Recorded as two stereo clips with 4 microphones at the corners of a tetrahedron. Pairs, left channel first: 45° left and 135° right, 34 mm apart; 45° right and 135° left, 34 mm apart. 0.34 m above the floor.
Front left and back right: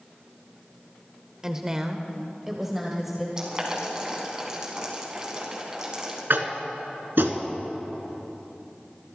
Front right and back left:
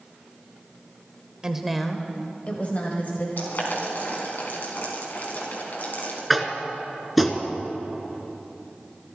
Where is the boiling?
65° right, 3.5 m.